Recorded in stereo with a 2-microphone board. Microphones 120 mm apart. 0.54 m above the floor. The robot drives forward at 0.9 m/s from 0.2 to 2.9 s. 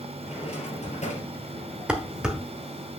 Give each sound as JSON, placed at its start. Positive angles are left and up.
{"t": 0.2, "sound": "a drawer", "side_deg": 55, "distance_m": 3.0}
{"t": 1.9, "sound": "dishes clattering", "side_deg": -10, "distance_m": 1.1}